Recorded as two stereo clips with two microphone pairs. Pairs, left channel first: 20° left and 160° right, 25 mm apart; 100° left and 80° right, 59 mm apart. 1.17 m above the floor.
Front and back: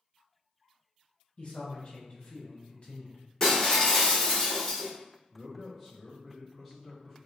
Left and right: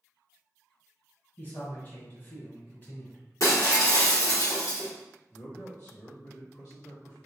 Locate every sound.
1.4 s a man speaking: 55° left, 1.1 m
3.4 s breaking glass: 90° left, 1.3 m
5.3 s a man speaking: 110° left, 1.4 m